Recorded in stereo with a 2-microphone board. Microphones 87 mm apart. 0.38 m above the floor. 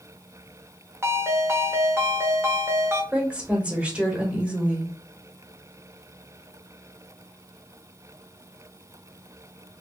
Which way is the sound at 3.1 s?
10° right (ahead or behind).